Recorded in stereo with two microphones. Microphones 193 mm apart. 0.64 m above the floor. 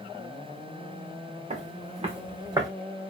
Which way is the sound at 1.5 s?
40° right (ahead or behind).